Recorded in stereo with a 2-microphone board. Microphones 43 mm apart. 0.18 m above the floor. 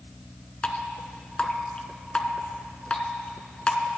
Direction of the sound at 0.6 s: 25° left (ahead or behind).